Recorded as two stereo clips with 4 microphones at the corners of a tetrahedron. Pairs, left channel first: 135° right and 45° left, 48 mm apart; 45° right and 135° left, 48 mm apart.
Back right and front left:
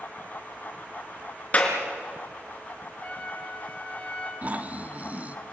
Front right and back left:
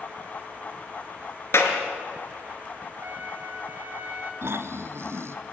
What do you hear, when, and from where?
1.5 s a clap: 75° right, 3.5 m
3.0 s a trumpet: 170° left, 3.5 m
4.4 s snoring: 105° left, 1.0 m